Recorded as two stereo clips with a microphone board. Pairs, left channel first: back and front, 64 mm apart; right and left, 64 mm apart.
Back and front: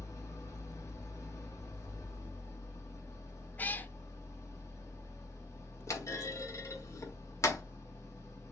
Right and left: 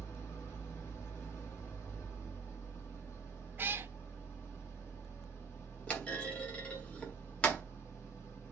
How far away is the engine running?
About 1.8 m.